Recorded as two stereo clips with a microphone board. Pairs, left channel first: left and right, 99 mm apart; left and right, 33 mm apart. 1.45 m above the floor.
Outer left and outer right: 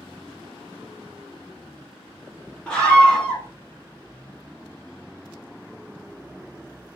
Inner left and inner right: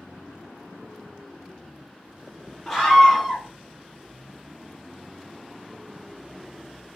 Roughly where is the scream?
Centre.